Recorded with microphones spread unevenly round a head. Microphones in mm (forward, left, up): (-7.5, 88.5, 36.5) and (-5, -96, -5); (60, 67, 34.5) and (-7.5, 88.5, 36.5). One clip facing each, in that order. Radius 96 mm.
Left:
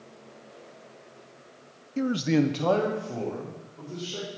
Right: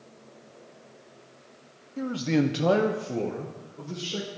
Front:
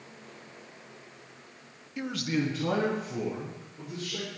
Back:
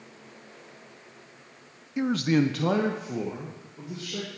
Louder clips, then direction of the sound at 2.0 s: Left 2 dB, back 7 dB; 105° left.